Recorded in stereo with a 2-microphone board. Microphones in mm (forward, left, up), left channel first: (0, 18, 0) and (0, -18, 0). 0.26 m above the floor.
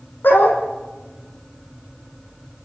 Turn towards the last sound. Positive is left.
turn(degrees=80)